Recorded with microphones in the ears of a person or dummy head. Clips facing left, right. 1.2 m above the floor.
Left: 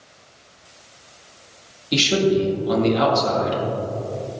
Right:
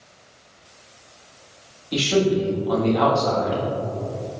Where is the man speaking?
35° left (ahead or behind), 1.7 m.